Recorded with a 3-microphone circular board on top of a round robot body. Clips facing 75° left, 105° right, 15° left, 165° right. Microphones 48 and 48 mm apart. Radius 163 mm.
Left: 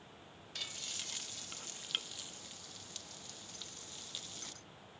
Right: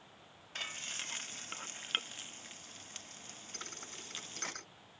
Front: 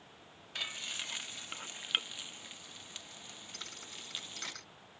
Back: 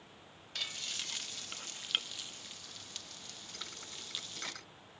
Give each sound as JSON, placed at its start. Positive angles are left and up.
{"t": 0.6, "sound": "frying", "azimuth_deg": -55}
{"t": 3.5, "sound": "a thud", "azimuth_deg": -80}